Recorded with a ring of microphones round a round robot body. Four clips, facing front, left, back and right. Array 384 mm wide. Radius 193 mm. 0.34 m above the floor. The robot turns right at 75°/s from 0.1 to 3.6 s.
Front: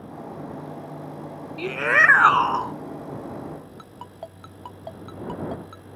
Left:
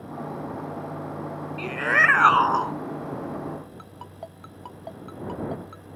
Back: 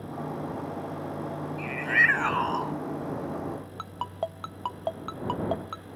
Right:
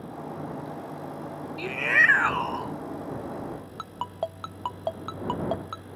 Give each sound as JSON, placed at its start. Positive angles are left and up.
{"t": 1.6, "sound": "a shout", "azimuth_deg": -10}
{"t": 3.8, "sound": "a ringtone", "azimuth_deg": -135}